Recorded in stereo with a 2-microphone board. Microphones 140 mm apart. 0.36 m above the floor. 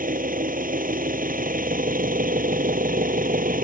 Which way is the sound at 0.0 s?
80° right.